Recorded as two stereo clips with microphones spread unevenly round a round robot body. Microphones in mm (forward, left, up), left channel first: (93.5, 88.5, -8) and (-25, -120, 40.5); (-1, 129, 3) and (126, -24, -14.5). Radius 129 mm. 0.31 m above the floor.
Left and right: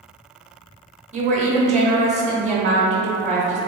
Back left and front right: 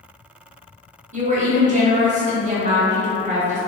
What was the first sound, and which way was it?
A woman speaking, 55° right.